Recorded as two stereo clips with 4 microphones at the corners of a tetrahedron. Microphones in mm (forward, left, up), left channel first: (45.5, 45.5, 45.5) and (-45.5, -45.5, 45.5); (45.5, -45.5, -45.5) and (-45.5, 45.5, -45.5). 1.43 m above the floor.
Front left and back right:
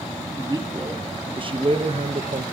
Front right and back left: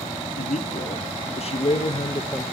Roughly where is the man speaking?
Right.